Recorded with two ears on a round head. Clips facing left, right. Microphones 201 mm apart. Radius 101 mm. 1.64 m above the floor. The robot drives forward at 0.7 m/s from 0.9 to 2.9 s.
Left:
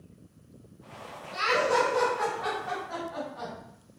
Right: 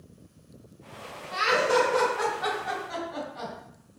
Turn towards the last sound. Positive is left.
turn(degrees=-45)  # may be behind; listen again after turning